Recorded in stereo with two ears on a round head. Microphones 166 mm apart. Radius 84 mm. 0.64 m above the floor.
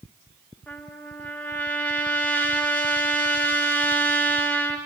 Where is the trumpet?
10° left (ahead or behind), 1.3 m.